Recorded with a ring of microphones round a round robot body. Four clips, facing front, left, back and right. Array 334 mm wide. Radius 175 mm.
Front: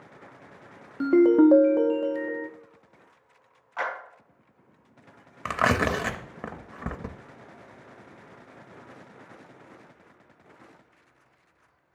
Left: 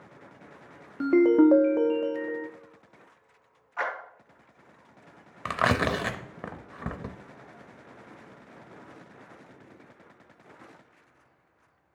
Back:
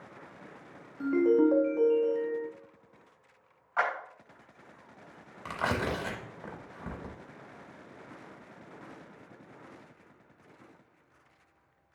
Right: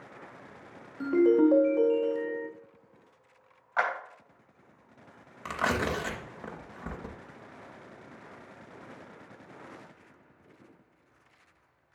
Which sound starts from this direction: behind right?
A clap, at 3.8 s.